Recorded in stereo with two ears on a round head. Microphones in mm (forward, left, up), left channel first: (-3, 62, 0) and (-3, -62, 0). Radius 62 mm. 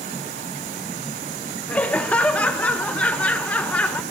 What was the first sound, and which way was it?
Laughter, 10° left (ahead or behind).